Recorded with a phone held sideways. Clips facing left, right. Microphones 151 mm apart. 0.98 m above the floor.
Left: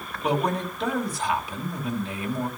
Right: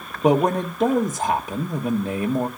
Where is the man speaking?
45° right (ahead or behind), 1.5 m.